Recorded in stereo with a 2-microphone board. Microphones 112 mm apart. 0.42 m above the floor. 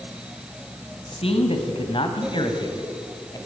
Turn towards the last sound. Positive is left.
turn(degrees=35)  # may be behind; listen again after turning